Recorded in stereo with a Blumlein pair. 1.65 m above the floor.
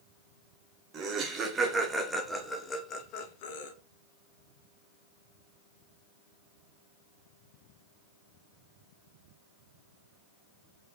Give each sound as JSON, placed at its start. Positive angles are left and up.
{"t": 0.9, "sound": "laughter", "azimuth_deg": -25, "distance_m": 1.6}